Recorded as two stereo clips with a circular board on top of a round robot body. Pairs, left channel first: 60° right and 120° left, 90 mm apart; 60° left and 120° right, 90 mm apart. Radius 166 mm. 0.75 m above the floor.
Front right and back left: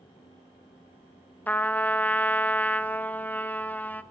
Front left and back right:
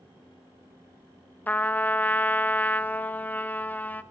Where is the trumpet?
Straight ahead, 0.6 m.